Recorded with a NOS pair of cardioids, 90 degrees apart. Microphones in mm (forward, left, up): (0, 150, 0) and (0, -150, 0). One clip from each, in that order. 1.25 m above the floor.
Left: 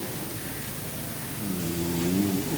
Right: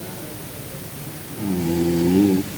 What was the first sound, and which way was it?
Only background noise.